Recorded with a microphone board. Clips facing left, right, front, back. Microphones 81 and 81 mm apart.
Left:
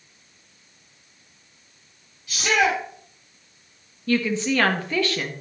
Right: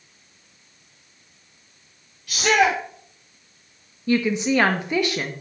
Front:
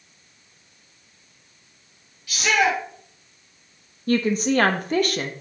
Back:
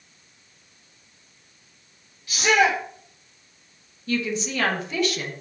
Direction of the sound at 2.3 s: 110° right.